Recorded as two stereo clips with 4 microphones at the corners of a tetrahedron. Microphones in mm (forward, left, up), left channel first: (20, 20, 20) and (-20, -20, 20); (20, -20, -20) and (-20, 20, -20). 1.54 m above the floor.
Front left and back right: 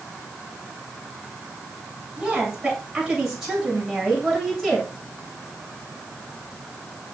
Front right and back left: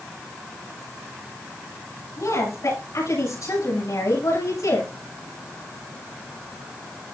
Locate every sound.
2.2 s a woman speaking: 60° right, 8 m; by 4.9 s 45° right, 8 m